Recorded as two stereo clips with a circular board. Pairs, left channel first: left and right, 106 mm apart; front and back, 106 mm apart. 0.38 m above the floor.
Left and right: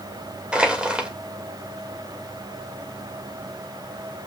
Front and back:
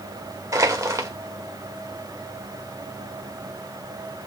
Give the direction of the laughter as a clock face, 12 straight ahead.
I don't hear laughter.